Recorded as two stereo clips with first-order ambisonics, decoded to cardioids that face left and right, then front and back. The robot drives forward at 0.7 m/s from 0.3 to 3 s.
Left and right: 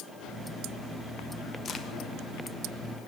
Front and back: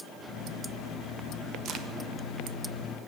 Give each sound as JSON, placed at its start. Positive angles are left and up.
{"t": 1.6, "sound": "a crack", "azimuth_deg": 145, "distance_m": 0.6}